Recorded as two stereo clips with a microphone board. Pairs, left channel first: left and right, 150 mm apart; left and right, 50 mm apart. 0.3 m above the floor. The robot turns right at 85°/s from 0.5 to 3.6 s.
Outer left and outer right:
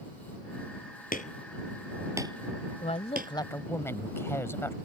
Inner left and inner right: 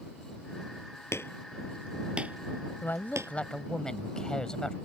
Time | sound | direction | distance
1.1 | hammering | 70° left (ahead or behind) | ?
2.8 | a woman speaking | 90° left | ?